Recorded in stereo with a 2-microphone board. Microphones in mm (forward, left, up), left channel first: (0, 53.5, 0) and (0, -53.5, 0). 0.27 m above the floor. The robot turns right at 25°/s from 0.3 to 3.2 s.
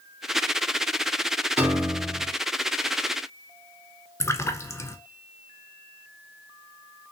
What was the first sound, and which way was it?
A piano, 25° right (ahead or behind).